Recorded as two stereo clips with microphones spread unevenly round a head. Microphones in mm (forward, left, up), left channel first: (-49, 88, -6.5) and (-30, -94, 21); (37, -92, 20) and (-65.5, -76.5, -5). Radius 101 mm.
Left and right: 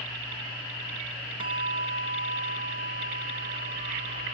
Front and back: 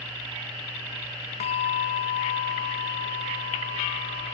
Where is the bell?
20° right.